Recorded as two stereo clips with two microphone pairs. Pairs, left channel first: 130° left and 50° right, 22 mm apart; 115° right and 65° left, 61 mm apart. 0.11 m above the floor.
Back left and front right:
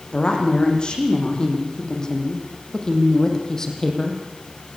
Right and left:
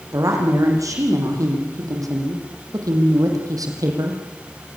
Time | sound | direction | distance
0.1 | a woman speaking | 90° left | 7 m